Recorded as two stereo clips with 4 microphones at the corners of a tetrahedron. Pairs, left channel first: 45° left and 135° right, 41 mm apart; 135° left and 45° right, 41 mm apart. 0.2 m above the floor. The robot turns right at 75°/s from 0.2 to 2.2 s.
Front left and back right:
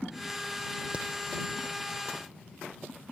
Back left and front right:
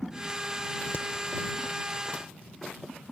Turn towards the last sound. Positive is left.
turn(degrees=-105)